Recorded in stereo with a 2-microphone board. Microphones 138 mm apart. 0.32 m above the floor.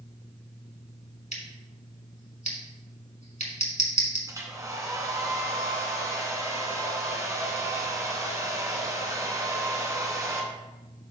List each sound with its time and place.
1.3 s scissors: 60° left (ahead or behind), 2 m
4.3 s a hair dryer: 25° right (ahead or behind), 1.6 m